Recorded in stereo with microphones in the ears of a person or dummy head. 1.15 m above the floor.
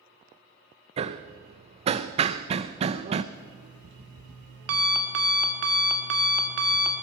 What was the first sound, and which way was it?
Hammering, 35° right (ahead or behind).